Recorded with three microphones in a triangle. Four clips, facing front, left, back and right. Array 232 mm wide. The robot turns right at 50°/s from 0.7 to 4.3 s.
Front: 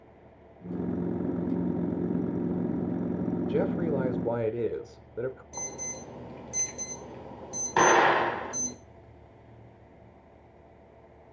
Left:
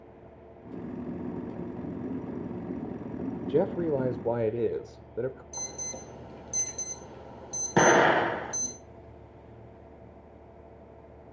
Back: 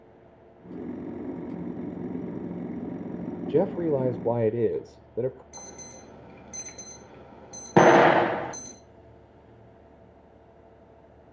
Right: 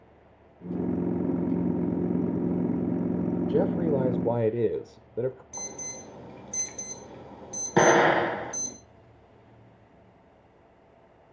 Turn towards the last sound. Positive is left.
turn(degrees=-175)